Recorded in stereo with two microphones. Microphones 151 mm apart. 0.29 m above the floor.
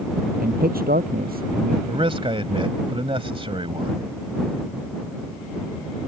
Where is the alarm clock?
I don't hear an alarm clock.